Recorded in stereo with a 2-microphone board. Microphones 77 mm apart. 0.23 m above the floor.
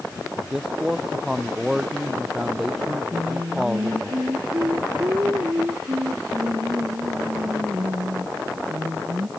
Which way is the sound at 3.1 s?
35° right (ahead or behind).